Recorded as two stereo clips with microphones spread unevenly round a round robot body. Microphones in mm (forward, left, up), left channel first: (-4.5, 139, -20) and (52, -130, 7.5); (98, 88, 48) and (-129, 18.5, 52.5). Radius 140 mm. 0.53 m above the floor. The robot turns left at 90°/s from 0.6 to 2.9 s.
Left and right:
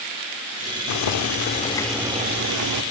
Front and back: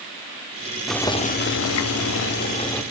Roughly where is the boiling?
Left.